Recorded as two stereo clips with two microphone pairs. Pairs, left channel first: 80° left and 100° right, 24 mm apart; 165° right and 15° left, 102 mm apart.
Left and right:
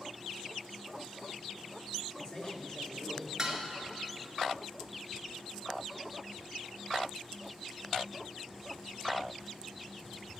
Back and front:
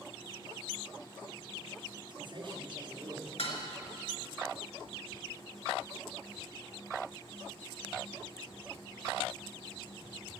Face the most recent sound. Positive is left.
turn(degrees=-170)